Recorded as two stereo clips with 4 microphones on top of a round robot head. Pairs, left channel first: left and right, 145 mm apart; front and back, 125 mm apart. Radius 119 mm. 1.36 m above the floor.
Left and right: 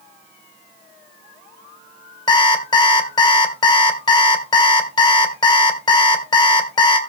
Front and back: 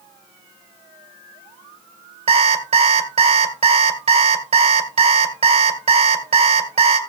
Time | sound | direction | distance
2.3 | an alarm clock | 150° left | 1.8 m